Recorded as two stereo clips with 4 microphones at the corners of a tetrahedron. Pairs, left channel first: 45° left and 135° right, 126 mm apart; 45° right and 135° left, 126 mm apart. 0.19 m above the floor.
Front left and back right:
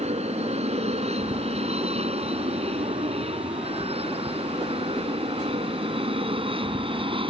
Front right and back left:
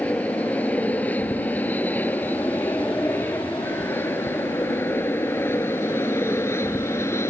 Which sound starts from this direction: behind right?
An aircraft, at 0.0 s.